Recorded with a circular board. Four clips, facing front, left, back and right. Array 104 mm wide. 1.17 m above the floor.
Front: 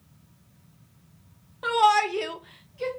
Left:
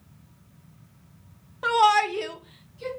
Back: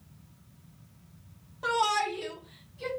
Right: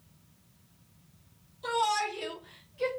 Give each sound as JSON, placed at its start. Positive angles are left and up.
{"t": 1.6, "sound": "a shout", "azimuth_deg": 75, "distance_m": 1.0}